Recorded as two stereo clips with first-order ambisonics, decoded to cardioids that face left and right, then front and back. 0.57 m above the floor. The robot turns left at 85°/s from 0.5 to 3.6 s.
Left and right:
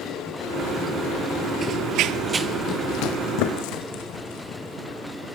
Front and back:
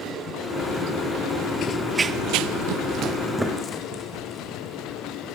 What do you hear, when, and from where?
1.6 s running footsteps: 30° right, 0.7 m; by 5.3 s 65° left, 4.5 m